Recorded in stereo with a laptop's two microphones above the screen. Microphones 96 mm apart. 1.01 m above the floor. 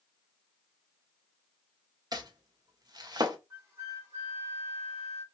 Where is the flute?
25° right (ahead or behind), 1.0 m.